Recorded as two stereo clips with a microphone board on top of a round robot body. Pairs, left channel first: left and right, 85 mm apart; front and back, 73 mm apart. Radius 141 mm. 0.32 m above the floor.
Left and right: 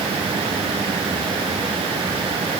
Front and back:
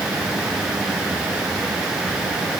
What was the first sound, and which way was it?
Only background noise.